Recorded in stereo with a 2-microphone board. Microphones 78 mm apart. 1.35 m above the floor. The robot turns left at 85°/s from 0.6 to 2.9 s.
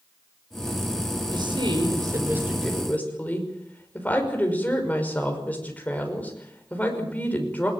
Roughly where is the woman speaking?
Ahead right.